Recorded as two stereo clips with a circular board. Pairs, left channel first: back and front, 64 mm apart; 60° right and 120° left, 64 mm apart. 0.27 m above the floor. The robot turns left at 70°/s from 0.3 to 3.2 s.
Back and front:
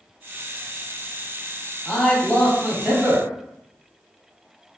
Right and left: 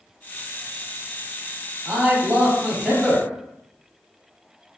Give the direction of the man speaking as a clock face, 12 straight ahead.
8 o'clock.